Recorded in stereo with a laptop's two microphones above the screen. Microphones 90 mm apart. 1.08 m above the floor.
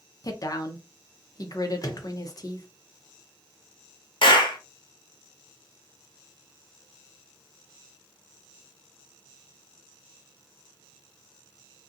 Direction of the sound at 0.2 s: 40° left (ahead or behind).